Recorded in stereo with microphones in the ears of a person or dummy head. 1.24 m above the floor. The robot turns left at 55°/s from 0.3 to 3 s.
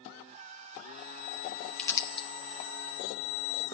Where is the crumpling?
5° left (ahead or behind), 0.7 m; by 2.3 s 30° left (ahead or behind), 0.7 m.